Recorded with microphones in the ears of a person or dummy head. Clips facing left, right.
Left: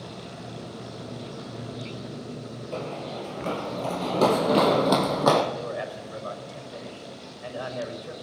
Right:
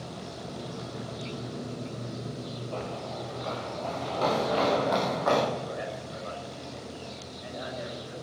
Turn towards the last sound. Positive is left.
turn(degrees=75)  # may be behind; listen again after turning